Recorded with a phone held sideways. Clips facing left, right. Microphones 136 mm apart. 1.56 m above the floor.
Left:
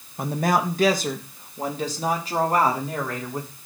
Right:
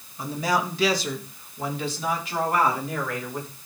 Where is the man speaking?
60° left (ahead or behind), 1.4 m; by 3.5 s 35° left (ahead or behind), 4.5 m.